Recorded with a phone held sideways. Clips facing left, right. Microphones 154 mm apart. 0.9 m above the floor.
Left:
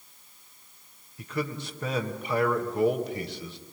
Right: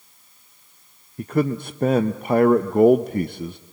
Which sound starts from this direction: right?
A man speaking, at 1.2 s.